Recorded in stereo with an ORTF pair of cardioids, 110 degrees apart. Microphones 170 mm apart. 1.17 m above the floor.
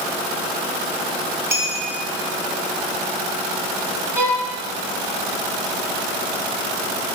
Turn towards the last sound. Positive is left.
turn(degrees=-15)